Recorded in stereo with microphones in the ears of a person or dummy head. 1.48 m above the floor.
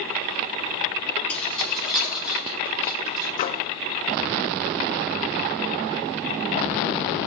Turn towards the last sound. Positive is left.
turn(degrees=35)  # may be behind; listen again after turning